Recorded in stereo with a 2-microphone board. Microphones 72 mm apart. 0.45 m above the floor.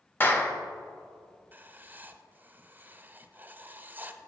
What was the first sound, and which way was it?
A clap, 30° left (ahead or behind).